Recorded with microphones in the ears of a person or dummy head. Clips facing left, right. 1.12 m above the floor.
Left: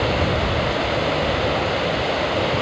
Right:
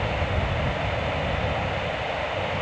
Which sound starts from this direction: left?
Running water, at 0.0 s.